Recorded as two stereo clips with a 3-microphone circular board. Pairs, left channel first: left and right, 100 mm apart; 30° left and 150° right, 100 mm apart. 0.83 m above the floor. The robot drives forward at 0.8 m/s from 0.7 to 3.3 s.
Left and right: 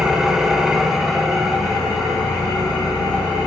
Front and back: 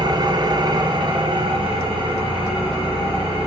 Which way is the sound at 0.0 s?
175° right.